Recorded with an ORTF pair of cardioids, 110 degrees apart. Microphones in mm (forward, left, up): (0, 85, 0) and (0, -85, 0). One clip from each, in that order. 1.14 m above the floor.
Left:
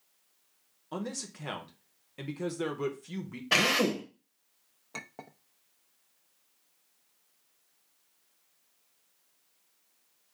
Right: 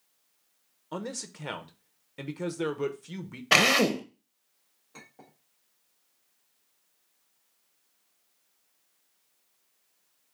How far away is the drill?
About 0.6 m.